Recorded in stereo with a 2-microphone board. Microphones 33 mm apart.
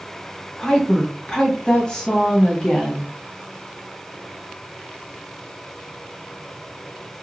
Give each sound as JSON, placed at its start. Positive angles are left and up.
{"t": 0.6, "sound": "a woman speaking", "side_deg": 20, "distance_m": 1.2}